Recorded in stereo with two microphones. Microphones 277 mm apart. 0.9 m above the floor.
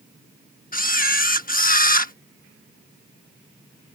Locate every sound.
0.7 s a camera shutter: 35° left (ahead or behind)